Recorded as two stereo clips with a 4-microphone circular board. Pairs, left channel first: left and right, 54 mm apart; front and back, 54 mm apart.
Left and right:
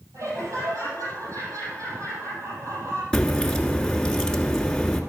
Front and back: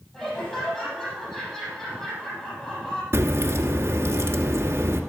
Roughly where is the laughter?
Right.